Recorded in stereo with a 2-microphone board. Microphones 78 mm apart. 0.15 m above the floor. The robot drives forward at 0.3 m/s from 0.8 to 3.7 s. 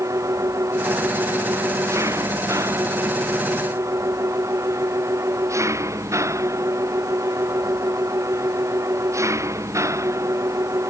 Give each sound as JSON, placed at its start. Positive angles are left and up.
{"t": 0.0, "sound": "an engine running", "side_deg": -40}